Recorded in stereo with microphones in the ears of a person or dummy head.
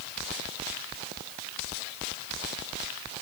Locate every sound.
Only background noise.